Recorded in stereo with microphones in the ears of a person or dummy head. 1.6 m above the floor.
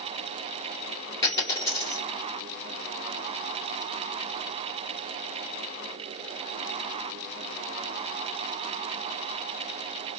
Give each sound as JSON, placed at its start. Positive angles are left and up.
{"t": 1.2, "sound": "a dropped coin", "side_deg": 25, "distance_m": 2.5}